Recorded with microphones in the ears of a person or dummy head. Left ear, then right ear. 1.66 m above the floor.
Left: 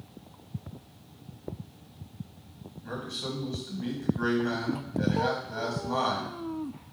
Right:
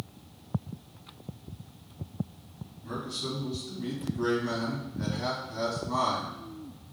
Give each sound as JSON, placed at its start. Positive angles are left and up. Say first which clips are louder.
{"t": 2.8, "sound": "a man speaking", "louder": "even", "side_deg": 35, "distance_m": 2.0}